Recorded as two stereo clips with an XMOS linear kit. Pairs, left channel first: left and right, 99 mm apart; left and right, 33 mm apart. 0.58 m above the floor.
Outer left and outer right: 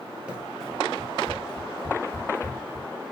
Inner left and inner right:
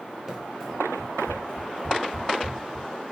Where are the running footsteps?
15° right (ahead or behind), 0.6 m; by 2.9 s 65° left (ahead or behind), 1.5 m.